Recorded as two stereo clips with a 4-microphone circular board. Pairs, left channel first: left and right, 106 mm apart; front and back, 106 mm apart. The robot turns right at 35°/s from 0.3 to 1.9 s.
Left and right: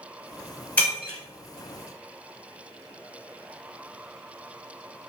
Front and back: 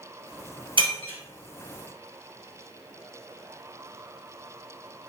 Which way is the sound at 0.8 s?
165° left.